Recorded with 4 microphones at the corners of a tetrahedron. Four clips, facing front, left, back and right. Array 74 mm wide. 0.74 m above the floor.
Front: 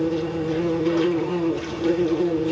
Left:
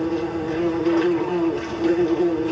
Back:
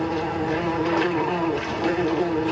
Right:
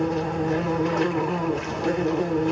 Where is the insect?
165° right, 1.5 m.